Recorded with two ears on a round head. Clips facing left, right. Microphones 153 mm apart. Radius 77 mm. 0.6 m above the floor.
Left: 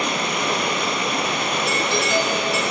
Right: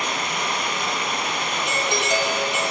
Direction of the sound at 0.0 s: 70° left (ahead or behind).